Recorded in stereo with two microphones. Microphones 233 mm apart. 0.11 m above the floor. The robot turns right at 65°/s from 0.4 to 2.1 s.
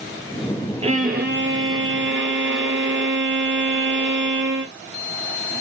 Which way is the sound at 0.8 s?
150° right.